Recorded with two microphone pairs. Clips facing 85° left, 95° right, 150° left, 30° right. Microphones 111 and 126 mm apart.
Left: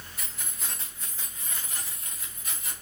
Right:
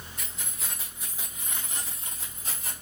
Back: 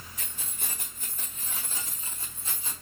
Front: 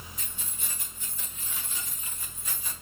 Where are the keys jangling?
170° left, 3 m; by 2.7 s 145° right, 3 m.